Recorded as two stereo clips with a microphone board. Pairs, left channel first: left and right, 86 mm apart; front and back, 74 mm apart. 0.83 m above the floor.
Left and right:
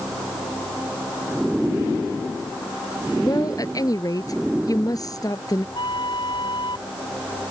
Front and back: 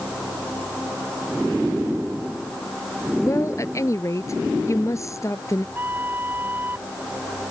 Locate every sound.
3.2 s a woman speaking: 45° left
5.8 s a flute: 120° left